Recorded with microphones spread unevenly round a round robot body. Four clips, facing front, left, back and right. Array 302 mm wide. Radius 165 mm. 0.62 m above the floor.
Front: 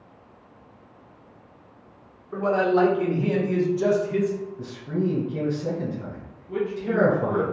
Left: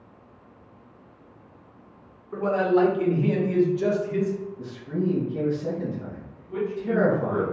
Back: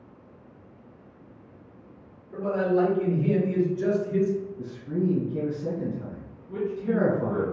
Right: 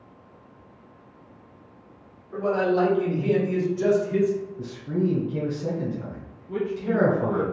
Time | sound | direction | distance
2.3 | a man speaking | 20° left | 1.9 m
4.6 | a man speaking | 65° right | 1.7 m
6.5 | a man speaking | 70° right | 1.0 m